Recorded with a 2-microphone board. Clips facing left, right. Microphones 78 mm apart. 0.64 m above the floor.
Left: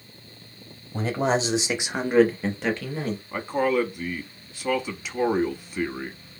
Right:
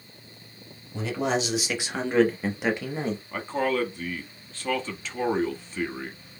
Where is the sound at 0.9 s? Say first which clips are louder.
Left 3 dB; 45° left (ahead or behind), 1.0 m; by 3.2 s 25° right (ahead or behind), 0.9 m.